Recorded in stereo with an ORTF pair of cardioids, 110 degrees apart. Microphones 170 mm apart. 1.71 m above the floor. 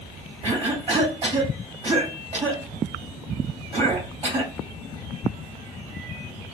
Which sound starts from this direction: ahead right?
A cough, at 0.4 s.